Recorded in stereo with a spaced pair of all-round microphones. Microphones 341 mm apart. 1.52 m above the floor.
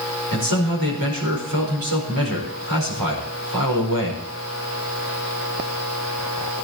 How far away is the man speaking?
About 4.5 m.